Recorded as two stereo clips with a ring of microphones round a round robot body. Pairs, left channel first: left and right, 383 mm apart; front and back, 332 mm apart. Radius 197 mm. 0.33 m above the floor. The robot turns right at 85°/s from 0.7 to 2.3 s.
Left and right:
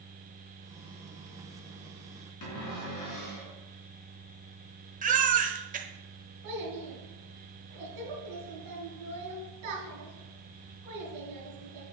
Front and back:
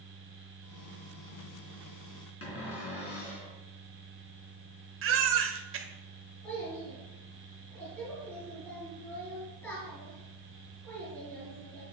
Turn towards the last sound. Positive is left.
turn(degrees=-85)